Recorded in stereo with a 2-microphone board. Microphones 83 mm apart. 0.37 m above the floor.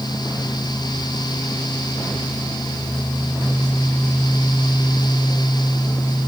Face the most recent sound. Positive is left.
No sound to turn to.